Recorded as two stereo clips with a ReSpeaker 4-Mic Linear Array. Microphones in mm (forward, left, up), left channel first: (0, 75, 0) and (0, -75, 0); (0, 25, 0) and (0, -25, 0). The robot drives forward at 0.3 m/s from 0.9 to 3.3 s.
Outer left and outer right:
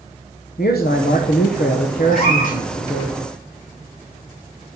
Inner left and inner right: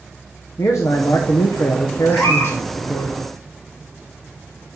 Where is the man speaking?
80° left, 1.1 m; by 3.1 s 65° left (ahead or behind), 1.2 m.